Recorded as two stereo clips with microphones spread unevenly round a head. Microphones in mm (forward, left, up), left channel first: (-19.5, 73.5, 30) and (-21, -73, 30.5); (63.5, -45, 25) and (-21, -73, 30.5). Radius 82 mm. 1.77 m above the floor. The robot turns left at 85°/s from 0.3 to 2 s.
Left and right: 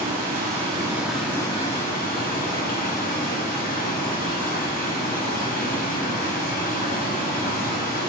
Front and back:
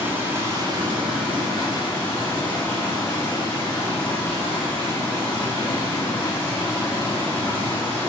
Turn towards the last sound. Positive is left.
turn(degrees=105)